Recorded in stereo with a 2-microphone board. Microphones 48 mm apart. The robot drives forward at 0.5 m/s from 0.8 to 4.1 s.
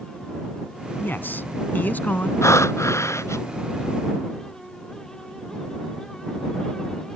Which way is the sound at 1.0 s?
45° left (ahead or behind).